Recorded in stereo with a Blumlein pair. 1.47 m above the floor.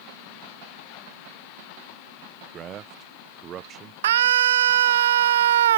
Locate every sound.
2.5 s a man speaking: 25° right
4.0 s a scream: 60° right